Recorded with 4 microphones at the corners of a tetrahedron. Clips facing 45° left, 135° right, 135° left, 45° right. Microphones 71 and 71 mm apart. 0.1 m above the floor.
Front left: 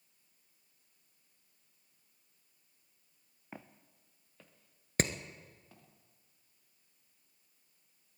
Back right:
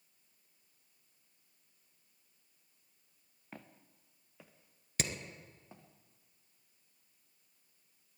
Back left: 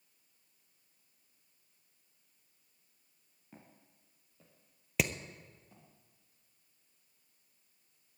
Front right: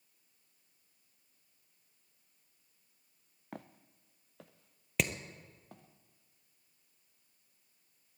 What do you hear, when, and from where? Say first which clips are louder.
3.5 s footsteps: front left 2 dB, front right 10 dB; 30° right, 1.0 m; by 5.9 s 70° right, 2.5 m
5.0 s hammering: front left 6 dB, back left 1 dB; 50° left, 0.9 m